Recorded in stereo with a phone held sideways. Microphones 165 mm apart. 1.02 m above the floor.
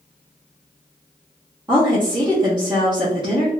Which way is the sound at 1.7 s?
30° right (ahead or behind).